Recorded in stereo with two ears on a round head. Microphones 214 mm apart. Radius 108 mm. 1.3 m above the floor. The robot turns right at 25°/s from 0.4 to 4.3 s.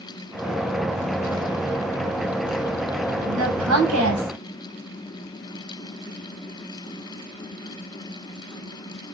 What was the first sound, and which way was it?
A woman speaking, 80° right.